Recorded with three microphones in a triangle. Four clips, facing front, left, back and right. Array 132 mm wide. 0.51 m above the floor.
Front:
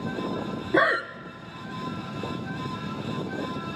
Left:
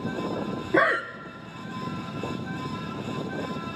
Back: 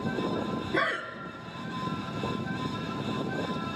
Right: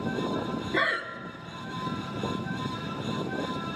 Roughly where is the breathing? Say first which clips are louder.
Left 8 dB, front 9 dB; ahead left.